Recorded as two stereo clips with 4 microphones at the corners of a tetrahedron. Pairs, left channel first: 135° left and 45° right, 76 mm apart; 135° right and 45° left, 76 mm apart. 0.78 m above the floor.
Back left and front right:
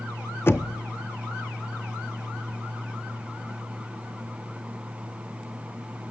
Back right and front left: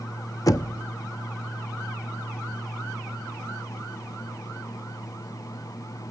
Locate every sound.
0.5 s knocking: 170° right, 0.6 m